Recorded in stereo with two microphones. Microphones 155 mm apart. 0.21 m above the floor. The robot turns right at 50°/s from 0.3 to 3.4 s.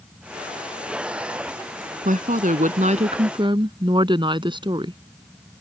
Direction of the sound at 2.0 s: 105° right.